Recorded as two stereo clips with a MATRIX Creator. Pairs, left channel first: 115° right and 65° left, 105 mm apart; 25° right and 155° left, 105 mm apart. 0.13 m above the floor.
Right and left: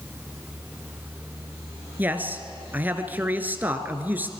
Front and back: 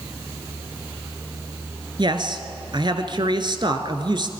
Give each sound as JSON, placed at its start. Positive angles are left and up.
{"t": 2.0, "sound": "a man speaking", "azimuth_deg": 135, "distance_m": 1.6}